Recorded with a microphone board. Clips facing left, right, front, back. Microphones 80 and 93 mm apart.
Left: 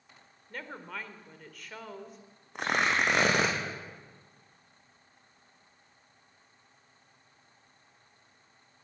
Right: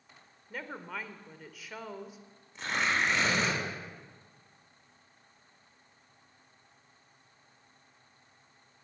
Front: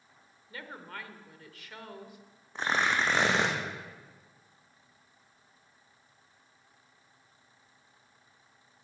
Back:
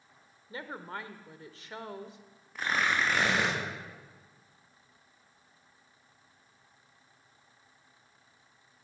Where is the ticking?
I don't hear ticking.